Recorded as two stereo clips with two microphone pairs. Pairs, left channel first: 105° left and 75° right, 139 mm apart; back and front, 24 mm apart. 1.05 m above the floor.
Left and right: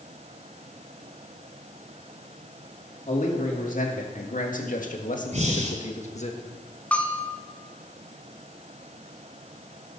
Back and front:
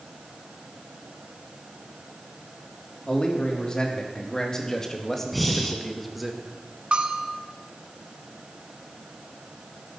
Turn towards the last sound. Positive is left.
turn(degrees=25)